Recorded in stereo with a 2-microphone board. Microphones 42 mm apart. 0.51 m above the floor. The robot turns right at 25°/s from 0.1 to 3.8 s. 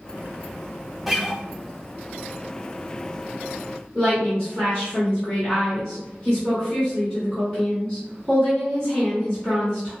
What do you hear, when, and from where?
1.1 s a guitar: 5° right (ahead or behind), 0.5 m; by 1.4 s 15° right (ahead or behind), 0.5 m
4.0 s a woman speaking: 15° left (ahead or behind), 1.8 m